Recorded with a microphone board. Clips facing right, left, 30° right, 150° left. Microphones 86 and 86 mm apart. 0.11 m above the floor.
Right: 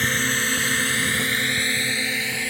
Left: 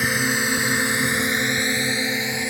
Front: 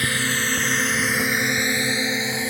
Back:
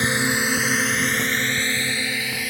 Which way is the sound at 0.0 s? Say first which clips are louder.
Left 2 dB, back 2 dB; 155° left.